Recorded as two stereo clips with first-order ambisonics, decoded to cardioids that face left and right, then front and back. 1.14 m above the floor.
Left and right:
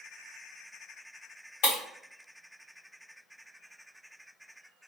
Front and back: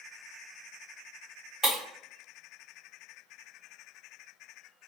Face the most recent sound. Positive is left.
turn(degrees=100)